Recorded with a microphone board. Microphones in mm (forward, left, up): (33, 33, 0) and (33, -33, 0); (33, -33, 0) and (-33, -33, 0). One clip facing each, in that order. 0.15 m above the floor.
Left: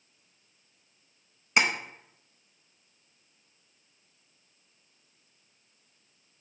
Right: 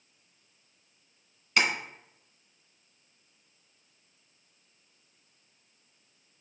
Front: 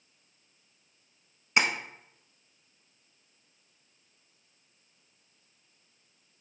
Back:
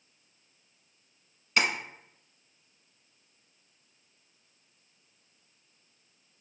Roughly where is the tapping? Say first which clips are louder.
Left 1 dB, front 1 dB; ahead left.